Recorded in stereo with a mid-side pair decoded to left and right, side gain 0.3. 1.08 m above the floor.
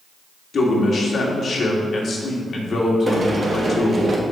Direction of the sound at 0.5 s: 65° left.